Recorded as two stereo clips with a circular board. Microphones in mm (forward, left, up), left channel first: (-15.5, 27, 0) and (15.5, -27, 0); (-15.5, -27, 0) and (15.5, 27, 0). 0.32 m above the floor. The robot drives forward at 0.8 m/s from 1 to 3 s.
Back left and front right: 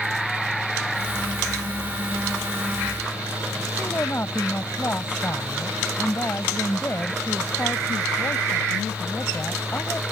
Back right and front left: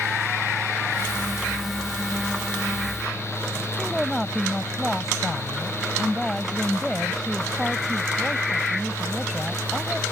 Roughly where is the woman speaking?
Behind left.